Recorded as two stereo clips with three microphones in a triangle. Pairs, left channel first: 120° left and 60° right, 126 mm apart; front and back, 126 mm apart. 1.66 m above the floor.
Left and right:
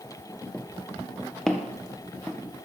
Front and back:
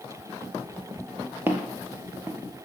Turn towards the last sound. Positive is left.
turn(degrees=-155)